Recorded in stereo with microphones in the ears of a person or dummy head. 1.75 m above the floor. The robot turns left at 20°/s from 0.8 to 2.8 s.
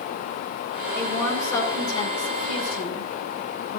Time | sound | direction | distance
0.9 | a woman speaking | 170° left | 2.5 m